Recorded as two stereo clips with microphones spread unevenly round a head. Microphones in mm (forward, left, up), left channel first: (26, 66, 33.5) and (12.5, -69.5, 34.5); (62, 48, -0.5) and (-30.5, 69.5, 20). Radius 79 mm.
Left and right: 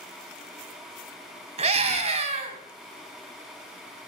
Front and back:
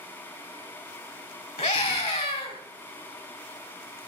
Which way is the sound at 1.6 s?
55° right.